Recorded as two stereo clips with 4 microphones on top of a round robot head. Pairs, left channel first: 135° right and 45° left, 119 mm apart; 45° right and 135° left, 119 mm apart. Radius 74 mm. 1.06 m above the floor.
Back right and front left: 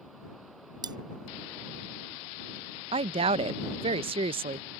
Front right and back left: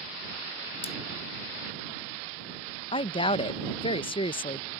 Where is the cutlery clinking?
10° right.